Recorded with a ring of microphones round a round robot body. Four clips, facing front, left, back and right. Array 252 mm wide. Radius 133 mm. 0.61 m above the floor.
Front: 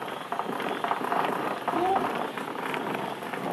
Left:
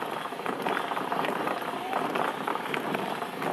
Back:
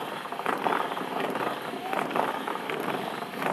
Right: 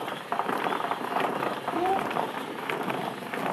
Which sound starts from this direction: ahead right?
A child speaking, at 1.8 s.